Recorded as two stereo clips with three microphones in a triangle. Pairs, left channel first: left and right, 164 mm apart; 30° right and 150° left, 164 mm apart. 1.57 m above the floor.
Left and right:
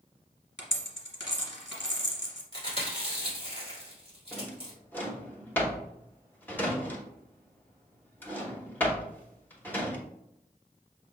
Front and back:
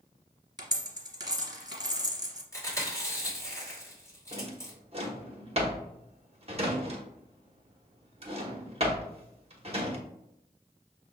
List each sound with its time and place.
0.6 s a dropped coin: 175° right, 1.7 m
2.5 s chewing: 40° left, 1.8 m
4.3 s a drawer: 160° left, 0.9 m